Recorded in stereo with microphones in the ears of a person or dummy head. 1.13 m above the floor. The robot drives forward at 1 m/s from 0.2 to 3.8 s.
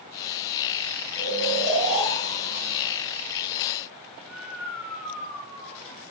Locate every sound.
1.2 s snoring: centre (ahead or behind), 5 m